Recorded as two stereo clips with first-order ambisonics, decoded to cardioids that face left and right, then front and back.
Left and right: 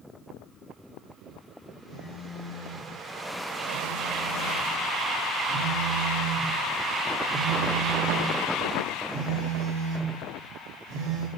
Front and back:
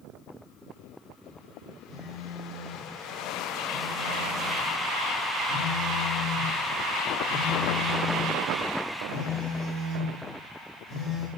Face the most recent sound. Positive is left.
turn(degrees=-80)